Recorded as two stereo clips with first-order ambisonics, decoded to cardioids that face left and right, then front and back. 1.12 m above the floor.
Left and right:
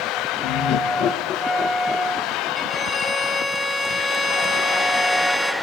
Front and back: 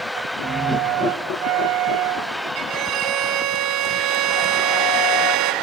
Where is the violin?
175° left, 0.9 m.